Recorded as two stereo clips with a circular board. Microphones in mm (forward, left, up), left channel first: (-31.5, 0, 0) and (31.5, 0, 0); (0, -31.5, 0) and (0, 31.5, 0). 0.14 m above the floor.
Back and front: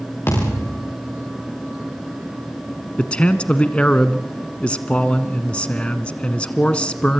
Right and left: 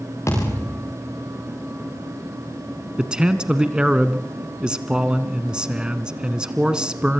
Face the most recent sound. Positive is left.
turn(degrees=140)